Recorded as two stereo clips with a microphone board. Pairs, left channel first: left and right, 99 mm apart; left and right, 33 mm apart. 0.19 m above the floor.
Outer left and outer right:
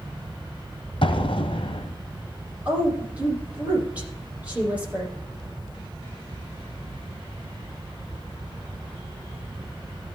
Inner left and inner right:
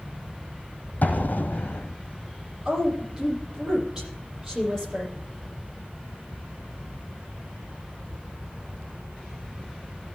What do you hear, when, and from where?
1.0 s an explosion: 70° left (ahead or behind), 1.3 m
2.6 s a woman speaking: 15° right (ahead or behind), 6.5 m